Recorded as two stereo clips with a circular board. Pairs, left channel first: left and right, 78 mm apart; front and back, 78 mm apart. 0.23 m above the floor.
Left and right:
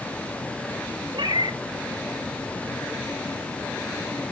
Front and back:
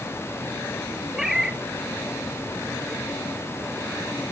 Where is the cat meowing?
95° right, 1.8 m.